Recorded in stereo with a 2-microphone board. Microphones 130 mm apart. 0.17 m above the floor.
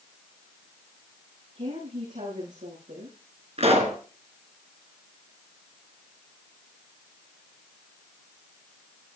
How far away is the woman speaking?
About 9 m.